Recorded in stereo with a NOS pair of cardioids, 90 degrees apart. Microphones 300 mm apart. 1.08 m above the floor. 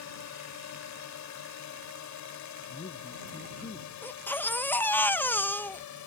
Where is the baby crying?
5° left.